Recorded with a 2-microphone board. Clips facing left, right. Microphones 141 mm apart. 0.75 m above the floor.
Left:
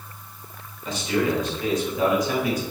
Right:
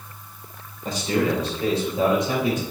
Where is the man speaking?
45° right (ahead or behind), 3 m; by 2.6 s 25° right (ahead or behind), 4 m.